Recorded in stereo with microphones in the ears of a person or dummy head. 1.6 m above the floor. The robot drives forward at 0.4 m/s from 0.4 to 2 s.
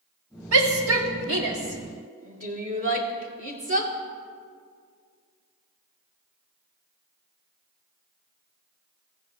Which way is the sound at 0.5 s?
75° right (ahead or behind).